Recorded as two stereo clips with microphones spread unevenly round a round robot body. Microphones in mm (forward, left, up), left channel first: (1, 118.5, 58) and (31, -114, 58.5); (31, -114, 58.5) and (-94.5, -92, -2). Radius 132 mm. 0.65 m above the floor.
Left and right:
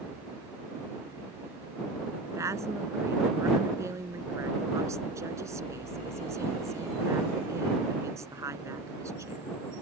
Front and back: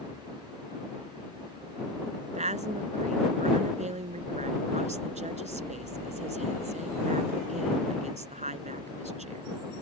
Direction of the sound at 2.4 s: 160° right.